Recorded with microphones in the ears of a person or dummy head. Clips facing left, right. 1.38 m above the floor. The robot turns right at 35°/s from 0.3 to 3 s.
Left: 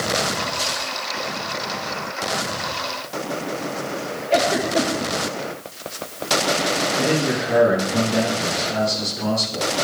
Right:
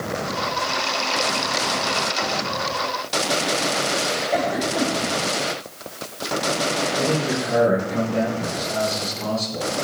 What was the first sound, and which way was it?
A giggle, 80° left.